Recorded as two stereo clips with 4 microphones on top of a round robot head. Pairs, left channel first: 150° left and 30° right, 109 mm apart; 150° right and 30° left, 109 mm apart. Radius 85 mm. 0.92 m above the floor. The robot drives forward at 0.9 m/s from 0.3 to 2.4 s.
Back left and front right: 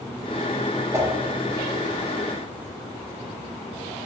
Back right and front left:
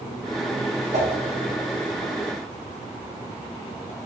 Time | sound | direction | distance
0.9 | a whoosh | 30° left | 5.5 m